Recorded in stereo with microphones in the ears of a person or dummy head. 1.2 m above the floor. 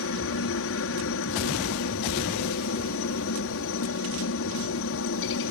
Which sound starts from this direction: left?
A helicopter, at 0.0 s.